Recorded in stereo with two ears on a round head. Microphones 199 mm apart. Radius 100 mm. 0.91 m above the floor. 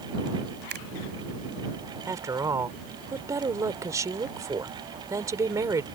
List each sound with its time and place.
0.7 s a finger snap: 50° right (ahead or behind)
2.1 s a woman speaking: 15° right (ahead or behind)